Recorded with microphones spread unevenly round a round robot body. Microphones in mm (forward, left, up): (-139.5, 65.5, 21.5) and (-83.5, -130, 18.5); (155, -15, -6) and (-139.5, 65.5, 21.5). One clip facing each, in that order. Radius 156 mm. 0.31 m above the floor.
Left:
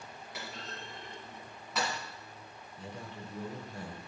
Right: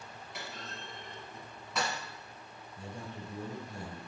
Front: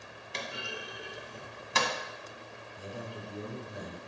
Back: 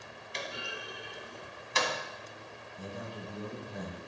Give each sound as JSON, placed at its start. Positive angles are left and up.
{"t": 0.3, "sound": "a clunk", "azimuth_deg": 15, "distance_m": 1.2}
{"t": 2.8, "sound": "a man speaking", "azimuth_deg": -80, "distance_m": 2.0}